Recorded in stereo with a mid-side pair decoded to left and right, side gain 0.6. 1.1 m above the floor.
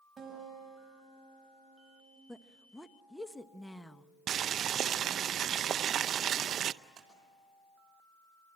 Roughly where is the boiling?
Ahead right.